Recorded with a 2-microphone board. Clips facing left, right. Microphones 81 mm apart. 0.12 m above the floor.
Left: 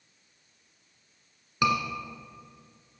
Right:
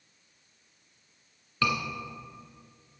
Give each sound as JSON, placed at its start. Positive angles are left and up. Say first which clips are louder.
{"t": 1.6, "sound": "a scream", "louder": "left 3 dB", "side_deg": 15, "distance_m": 1.5}